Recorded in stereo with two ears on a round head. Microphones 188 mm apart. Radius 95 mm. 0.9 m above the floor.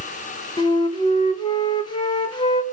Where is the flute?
20° left (ahead or behind), 0.9 m.